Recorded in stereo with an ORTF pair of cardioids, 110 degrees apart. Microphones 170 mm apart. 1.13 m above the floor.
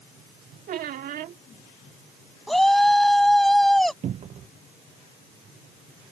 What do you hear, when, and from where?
0.7 s a squeak: 60° right
2.5 s a shout: straight ahead
4.0 s a cupboard door: 40° right